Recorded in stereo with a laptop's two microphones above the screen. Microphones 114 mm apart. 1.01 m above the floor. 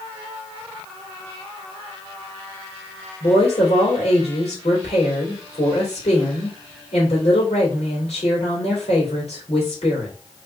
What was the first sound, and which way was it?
A woman speaking, 70° left (ahead or behind).